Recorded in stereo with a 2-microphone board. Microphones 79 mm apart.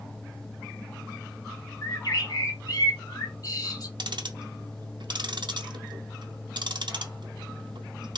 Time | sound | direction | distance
1.8 | a bird | 55° left (ahead or behind) | 1.4 m
4.0 | ticking | 70° right (ahead or behind) | 0.6 m